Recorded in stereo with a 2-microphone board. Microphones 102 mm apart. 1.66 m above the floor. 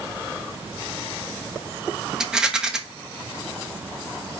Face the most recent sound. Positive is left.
turn(degrees=-5)  # may be behind; listen again after turning